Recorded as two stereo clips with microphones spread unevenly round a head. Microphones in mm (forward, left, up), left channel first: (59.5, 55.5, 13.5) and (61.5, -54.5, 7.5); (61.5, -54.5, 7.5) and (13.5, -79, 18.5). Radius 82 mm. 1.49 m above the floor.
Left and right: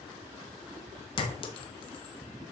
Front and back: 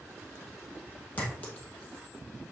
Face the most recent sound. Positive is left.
turn(degrees=105)